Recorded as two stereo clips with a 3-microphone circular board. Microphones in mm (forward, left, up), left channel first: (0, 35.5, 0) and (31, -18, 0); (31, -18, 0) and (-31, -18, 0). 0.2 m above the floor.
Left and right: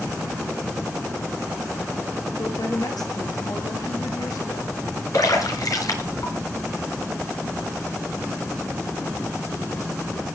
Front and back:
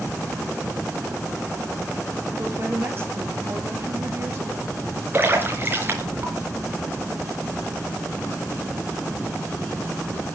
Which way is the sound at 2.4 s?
125° left.